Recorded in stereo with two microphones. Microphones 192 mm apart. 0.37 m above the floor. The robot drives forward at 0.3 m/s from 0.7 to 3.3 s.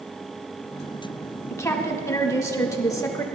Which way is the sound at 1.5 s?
15° left (ahead or behind).